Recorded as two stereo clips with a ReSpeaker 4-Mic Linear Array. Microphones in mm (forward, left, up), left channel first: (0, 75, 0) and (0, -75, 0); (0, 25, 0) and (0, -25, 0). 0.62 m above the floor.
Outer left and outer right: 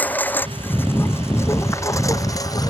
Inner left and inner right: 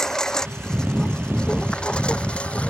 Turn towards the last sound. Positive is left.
turn(degrees=25)  # may be behind; listen again after turning